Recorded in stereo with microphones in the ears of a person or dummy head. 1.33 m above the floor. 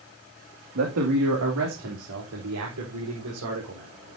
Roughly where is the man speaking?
Right.